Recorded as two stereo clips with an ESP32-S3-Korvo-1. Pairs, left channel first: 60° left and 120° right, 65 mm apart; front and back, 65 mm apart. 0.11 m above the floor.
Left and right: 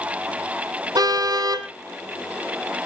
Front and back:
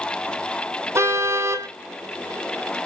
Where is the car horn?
130° right, 2.5 m.